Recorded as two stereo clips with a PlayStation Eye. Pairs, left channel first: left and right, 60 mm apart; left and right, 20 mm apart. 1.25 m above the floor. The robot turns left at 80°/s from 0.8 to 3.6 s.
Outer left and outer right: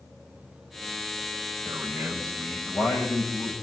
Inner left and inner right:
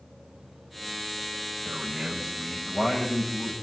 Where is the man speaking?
125° right, 7 m; by 3.5 s 80° left, 7 m.